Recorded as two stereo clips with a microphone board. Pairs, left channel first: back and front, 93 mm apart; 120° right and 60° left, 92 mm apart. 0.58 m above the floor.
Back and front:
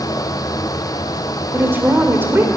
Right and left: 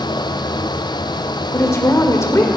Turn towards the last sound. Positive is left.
turn(degrees=-65)